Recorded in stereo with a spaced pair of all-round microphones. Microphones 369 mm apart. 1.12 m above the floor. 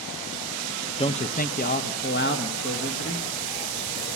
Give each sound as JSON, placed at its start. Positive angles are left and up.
{"t": 1.0, "sound": "a man speaking", "side_deg": 15, "distance_m": 0.6}